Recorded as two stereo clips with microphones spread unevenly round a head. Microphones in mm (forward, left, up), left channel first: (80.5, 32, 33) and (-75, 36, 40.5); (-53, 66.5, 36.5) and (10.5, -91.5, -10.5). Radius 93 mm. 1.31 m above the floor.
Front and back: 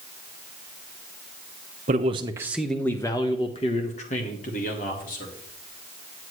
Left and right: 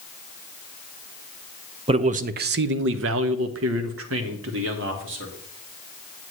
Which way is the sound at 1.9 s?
130° right.